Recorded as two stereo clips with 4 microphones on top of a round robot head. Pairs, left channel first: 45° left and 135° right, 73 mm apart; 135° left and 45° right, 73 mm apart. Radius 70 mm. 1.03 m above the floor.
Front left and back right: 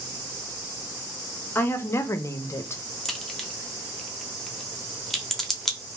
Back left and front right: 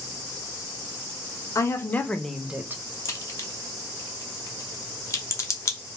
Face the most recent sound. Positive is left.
turn(degrees=130)